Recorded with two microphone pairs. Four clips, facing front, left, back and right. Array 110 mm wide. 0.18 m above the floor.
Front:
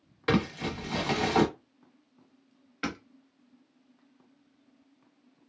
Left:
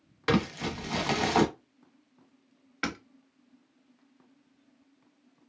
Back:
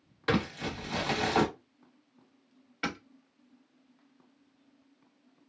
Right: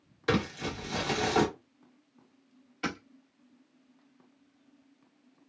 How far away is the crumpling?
About 1.1 m.